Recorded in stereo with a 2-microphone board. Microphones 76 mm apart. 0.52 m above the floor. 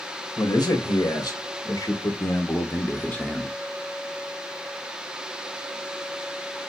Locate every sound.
0.4 s a man speaking: 65° left (ahead or behind), 2.5 m; by 3.6 s centre (ahead or behind), 1.0 m